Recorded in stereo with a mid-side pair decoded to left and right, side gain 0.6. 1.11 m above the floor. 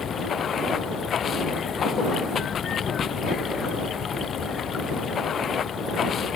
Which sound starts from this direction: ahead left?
Running water, at 0.0 s.